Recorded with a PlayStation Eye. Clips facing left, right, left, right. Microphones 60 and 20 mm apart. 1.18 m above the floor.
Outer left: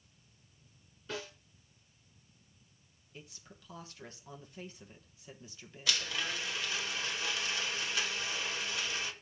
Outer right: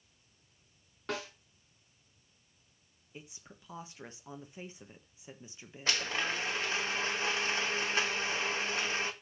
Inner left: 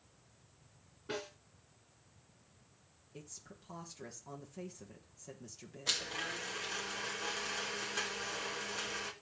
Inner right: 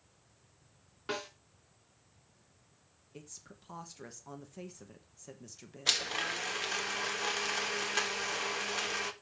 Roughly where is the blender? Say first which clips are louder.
Outer right 3 dB, inner right 5 dB; right.